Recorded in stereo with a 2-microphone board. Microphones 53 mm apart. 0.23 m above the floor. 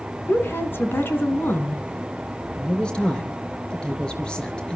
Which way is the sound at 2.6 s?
15° left (ahead or behind).